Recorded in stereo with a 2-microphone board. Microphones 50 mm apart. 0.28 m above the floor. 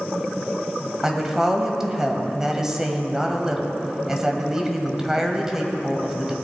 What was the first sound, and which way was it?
A woman speaking, 10° right (ahead or behind).